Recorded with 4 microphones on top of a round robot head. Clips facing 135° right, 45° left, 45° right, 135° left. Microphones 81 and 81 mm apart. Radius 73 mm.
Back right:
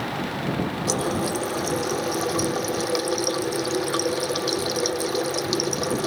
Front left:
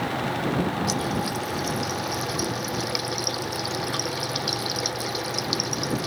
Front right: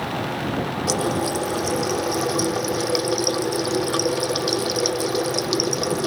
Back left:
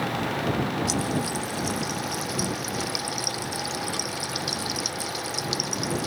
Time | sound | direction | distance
0.9 | a running tap | 80° right | ?